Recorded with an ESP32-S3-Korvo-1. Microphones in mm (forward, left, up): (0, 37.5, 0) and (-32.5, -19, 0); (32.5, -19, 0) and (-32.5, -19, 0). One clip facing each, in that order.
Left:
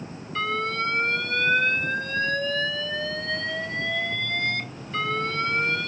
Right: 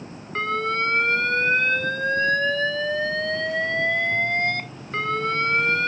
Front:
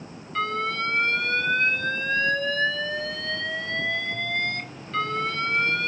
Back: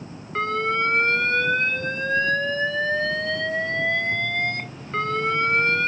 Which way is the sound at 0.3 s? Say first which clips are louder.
Right 3 dB, back 3 dB; 135° right.